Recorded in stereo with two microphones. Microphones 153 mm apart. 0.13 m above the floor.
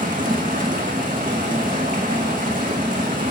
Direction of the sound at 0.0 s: 60° right (ahead or behind).